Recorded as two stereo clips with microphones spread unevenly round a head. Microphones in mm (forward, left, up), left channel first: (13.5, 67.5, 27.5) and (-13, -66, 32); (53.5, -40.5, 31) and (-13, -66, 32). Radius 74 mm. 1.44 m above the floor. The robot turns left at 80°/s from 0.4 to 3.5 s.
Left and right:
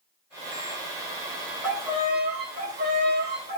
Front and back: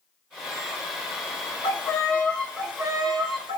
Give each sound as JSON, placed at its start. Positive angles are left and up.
{"t": 1.6, "sound": "a violin", "azimuth_deg": -5, "distance_m": 1.4}